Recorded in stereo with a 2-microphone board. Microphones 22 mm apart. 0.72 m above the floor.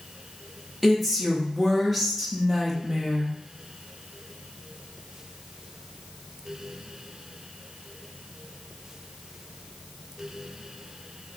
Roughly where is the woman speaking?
Centre.